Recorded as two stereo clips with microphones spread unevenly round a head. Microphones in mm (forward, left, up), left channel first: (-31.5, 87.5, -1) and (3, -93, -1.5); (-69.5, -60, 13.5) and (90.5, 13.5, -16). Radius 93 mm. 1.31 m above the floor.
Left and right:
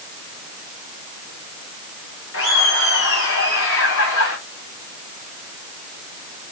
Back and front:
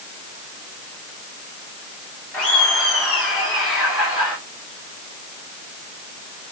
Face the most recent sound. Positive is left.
turn(degrees=110)